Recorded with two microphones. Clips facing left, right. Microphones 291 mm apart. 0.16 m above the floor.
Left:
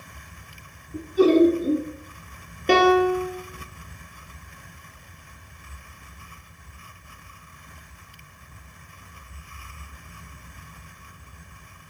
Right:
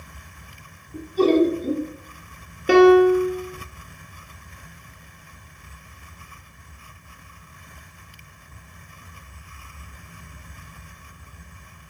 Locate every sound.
0.9 s laughter: 10° left (ahead or behind), 1.4 m
2.7 s a piano: 10° right (ahead or behind), 1.2 m